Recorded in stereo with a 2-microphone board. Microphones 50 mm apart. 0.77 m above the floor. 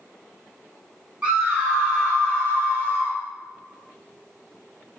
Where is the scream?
25° right (ahead or behind), 2 m; by 3.2 s 45° right (ahead or behind), 1.4 m.